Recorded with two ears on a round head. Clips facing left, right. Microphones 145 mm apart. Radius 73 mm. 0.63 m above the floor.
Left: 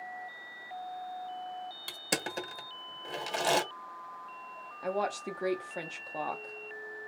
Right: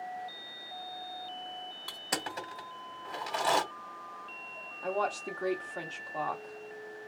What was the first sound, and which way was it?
Crushing, 35° left (ahead or behind).